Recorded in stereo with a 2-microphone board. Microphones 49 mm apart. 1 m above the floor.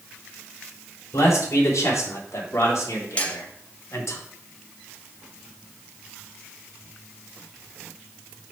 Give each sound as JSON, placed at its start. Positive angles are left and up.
{"t": 1.1, "sound": "a man speaking", "side_deg": 80, "distance_m": 3.5}
{"t": 3.2, "sound": "cutlery clinking", "side_deg": 20, "distance_m": 1.0}